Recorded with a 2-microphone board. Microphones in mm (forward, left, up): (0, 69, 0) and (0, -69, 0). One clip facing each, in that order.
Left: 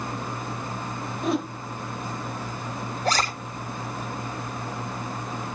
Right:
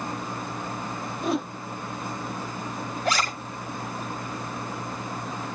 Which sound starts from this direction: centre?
A whoosh, at 1.2 s.